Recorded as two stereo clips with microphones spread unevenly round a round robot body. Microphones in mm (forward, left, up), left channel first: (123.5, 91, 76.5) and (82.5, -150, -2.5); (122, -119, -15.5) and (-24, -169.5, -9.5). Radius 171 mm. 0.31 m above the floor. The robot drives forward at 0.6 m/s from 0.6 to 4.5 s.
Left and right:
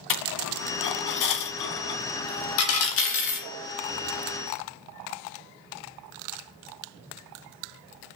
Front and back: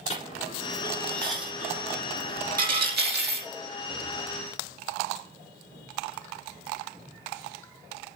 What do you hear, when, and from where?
0.1 s a dropped coin: 90° left, 1.4 m; by 3.5 s 140° left, 2 m